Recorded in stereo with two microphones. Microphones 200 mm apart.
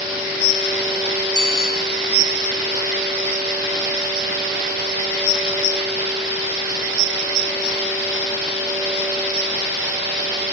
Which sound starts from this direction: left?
A bicycle bell, at 1.4 s.